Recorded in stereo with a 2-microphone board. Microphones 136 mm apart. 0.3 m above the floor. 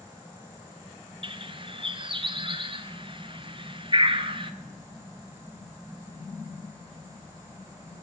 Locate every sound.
1.2 s a bird: 40° right (ahead or behind), 0.7 m